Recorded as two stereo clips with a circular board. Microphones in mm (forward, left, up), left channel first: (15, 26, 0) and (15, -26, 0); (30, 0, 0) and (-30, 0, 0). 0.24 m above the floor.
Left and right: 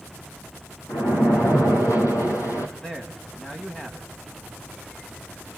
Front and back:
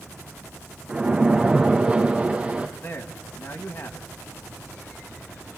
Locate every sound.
0.9 s a splash: 110° left, 1.8 m
2.8 s a man speaking: 20° left, 1.8 m